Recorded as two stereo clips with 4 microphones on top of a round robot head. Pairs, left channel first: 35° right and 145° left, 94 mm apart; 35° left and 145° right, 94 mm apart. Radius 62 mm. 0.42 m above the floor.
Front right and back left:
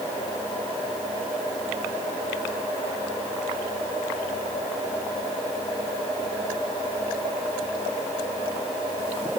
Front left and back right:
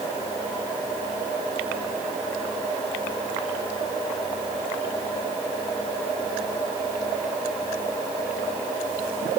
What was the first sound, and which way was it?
Only background noise.